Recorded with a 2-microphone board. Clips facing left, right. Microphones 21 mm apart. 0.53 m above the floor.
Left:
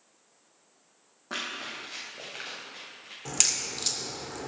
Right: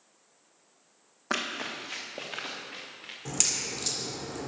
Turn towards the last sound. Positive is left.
turn(degrees=15)  # may be behind; listen again after turning